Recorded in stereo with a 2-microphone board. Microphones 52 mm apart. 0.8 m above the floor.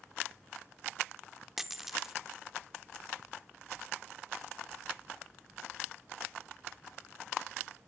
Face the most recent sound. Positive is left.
turn(degrees=-10)  # may be behind; listen again after turning